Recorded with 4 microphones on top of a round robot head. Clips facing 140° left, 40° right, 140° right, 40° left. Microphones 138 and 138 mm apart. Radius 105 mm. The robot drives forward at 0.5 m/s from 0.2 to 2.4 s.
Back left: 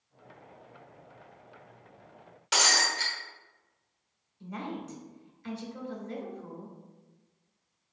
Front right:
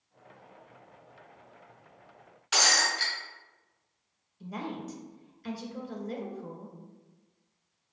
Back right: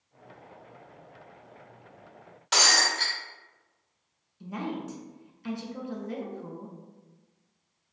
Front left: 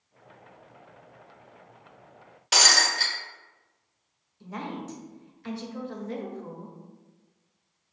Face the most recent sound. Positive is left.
turn(degrees=-90)